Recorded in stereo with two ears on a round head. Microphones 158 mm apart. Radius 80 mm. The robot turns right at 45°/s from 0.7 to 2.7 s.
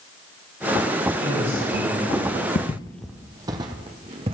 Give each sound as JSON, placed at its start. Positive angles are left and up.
{"t": 1.2, "sound": "a man speaking", "azimuth_deg": -35, "distance_m": 6.0}
{"t": 2.5, "sound": "footsteps", "side_deg": 50, "distance_m": 0.5}